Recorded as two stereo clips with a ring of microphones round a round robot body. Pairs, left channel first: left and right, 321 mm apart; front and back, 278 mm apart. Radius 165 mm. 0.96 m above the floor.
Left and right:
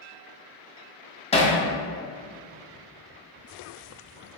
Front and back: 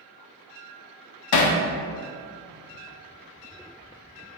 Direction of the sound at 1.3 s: 20° left.